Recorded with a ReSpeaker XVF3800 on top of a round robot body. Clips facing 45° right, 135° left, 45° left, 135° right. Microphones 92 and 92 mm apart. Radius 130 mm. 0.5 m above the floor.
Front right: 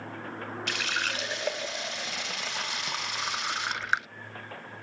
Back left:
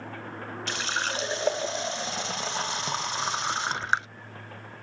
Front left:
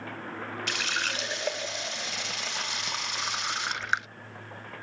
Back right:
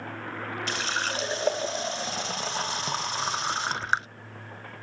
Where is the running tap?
Straight behind.